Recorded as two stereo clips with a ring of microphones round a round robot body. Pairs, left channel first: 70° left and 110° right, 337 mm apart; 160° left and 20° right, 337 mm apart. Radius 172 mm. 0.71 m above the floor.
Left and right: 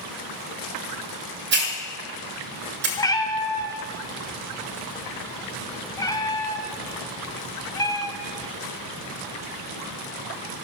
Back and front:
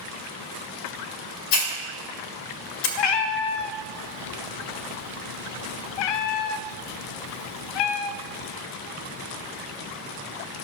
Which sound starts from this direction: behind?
A hiss, at 1.5 s.